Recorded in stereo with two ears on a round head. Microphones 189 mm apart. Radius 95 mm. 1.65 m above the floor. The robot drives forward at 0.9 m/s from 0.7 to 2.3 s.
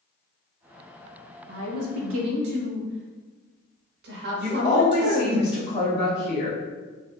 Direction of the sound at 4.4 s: 35° left (ahead or behind).